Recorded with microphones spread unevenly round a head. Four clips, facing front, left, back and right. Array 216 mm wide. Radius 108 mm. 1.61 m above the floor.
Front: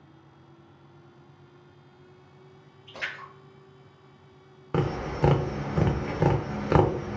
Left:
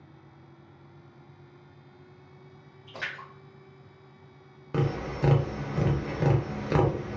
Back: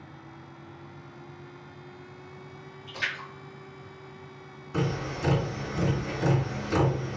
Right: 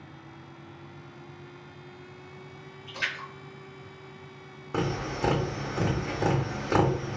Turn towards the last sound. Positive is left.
turn(degrees=-5)